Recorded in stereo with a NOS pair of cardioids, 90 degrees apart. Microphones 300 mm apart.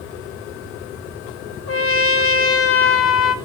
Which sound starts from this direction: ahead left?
A trumpet, at 1.7 s.